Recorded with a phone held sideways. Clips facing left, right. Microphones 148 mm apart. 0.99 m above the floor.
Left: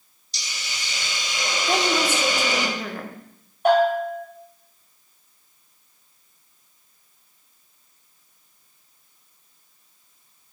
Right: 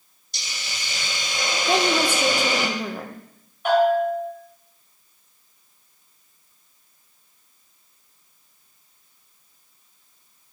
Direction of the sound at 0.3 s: 55° right (ahead or behind).